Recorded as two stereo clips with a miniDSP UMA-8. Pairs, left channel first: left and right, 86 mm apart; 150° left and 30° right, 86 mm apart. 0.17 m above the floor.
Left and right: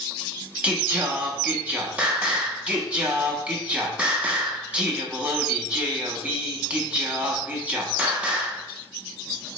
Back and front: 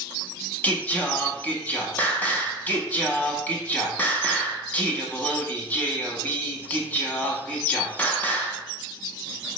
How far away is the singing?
About 0.6 m.